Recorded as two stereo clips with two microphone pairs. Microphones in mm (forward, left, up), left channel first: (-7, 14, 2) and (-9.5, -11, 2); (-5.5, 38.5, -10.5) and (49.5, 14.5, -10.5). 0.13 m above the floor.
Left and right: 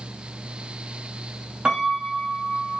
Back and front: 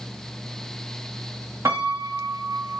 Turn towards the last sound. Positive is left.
turn(degrees=-55)